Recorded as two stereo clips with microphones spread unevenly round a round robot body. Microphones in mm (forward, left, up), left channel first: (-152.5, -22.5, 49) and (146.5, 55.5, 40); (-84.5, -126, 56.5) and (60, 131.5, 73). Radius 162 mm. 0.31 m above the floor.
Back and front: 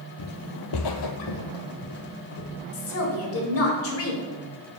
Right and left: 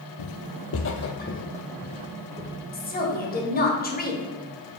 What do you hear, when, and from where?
0.2 s footsteps: 125° right, 0.5 m; by 2.6 s 160° left, 1.6 m
2.7 s a woman speaking: 160° right, 1.5 m